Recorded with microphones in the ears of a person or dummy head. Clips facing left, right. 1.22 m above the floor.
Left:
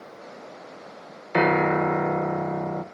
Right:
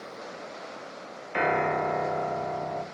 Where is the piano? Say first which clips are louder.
Left 5 dB; 60° left (ahead or behind), 1.0 m.